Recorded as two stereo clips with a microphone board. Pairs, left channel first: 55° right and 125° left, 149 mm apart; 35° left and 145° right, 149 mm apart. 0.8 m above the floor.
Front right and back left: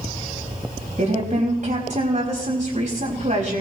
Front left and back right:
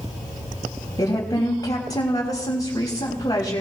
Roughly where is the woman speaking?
Left.